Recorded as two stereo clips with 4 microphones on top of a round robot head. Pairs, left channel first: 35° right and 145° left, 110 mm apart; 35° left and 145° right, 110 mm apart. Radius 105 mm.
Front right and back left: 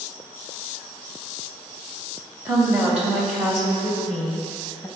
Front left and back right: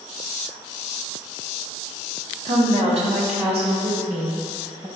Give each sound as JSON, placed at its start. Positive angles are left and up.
{"t": 2.5, "sound": "a woman speaking", "azimuth_deg": -145, "distance_m": 2.5}